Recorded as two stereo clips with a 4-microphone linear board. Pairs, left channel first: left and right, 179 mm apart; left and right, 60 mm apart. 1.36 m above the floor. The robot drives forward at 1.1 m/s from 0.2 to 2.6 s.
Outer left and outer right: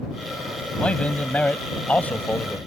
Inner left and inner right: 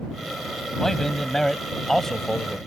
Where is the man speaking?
5° left (ahead or behind); by 2.6 s 10° left (ahead or behind).